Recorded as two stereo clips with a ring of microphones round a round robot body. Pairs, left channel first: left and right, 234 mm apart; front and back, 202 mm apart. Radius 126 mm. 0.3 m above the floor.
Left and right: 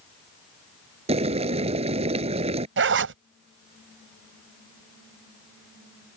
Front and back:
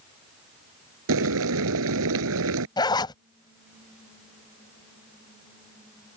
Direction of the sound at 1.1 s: 155° right.